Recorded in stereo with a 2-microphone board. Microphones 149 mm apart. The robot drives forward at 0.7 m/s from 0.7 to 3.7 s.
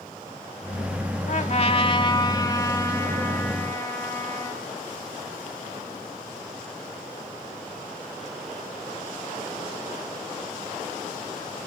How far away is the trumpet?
About 0.6 m.